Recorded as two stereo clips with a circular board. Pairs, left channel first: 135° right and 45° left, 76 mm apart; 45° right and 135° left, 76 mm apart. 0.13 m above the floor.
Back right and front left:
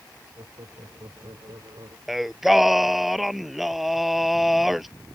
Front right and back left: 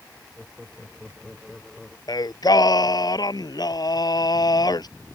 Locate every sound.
0.4 s laughter: 45° left; by 2.0 s 40° left
2.1 s singing: 45° right